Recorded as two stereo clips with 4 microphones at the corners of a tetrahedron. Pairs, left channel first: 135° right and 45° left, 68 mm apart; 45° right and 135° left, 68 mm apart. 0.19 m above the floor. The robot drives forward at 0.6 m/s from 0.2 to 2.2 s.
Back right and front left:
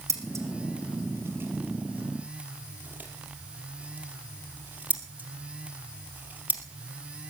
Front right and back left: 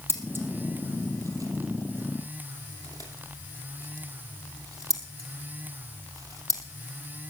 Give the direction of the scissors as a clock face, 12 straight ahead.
9 o'clock.